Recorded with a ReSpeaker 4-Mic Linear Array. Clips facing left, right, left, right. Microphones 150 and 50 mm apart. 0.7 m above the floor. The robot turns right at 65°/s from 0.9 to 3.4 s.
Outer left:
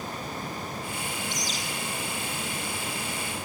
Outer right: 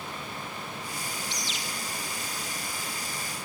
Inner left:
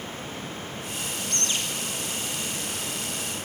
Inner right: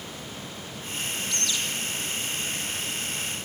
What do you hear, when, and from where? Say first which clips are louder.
1.3 s a bird: outer left 4 dB, inner left 1 dB; 55° left (ahead or behind), 9.5 m; by 1.6 s 35° left (ahead or behind), 9.5 m